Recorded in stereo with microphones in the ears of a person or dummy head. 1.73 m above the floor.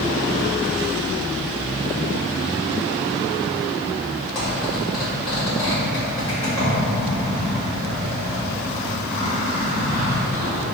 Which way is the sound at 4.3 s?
25° left (ahead or behind).